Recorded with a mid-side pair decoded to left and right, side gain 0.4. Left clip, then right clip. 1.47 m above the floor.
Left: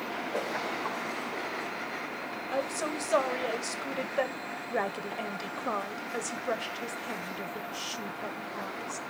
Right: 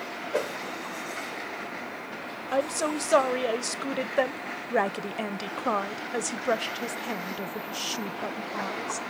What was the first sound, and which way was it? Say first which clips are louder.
A whoosh: right 5 dB; 55° right.